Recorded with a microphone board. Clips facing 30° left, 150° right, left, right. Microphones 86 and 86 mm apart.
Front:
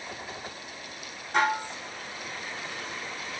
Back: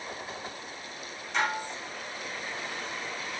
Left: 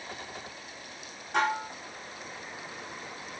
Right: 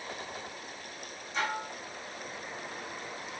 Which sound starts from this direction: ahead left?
Dishes clattering, at 1.3 s.